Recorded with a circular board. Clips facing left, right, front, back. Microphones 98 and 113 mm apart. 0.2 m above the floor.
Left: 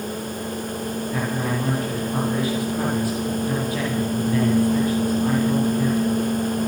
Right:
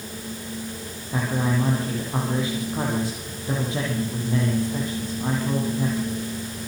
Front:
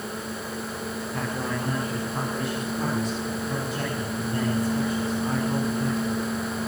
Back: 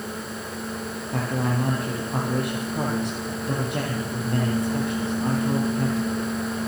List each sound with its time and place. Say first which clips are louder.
1.1 s a man speaking: right 3 dB, back 6 dB; 155° right, 8 m